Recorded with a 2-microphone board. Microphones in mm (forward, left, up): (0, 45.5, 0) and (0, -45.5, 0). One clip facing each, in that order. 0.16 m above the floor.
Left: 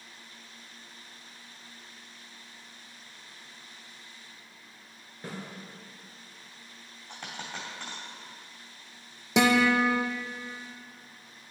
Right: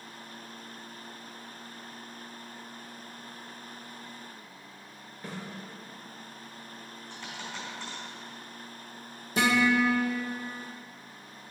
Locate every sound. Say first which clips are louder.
5.2 s a snare drum: even; 30° left (ahead or behind), 3 m
7.1 s a dropped coin: left 1 dB; 60° left (ahead or behind), 3 m
9.4 s a guitar: left 2 dB; 80° left, 1.3 m